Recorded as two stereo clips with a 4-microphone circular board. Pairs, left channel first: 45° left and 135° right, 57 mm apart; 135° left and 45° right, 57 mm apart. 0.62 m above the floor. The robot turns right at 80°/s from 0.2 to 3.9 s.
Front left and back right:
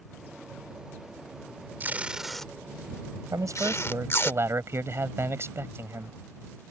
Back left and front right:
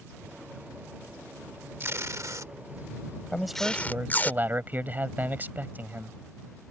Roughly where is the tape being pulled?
Right.